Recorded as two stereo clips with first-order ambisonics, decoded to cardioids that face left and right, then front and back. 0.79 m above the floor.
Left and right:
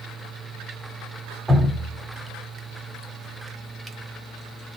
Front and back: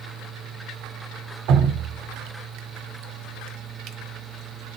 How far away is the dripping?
About 0.7 m.